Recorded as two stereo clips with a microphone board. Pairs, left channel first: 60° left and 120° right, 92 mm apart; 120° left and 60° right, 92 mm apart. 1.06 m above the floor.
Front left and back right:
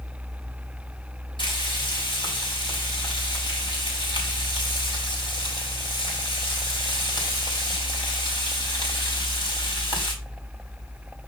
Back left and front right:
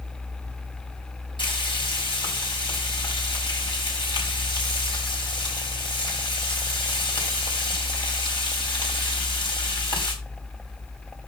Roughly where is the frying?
Left.